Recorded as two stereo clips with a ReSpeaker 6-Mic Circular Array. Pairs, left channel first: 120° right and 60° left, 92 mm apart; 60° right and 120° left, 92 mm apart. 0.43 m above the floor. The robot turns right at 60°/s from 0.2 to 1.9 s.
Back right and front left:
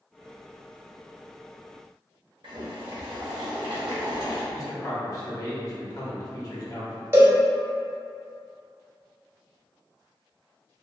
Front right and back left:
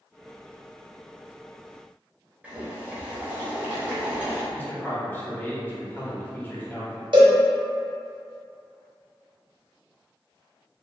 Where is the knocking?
I don't hear knocking.